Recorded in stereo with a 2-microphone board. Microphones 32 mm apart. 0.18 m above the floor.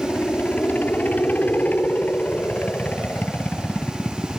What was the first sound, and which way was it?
A helicopter, 65° left (ahead or behind).